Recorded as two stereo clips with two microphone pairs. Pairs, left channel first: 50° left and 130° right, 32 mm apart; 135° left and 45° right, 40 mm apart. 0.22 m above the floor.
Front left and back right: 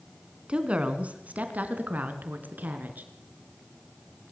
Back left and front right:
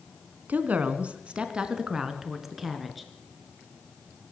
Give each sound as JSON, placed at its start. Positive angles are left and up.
{"t": 0.5, "sound": "a woman speaking", "azimuth_deg": -80, "distance_m": 2.5}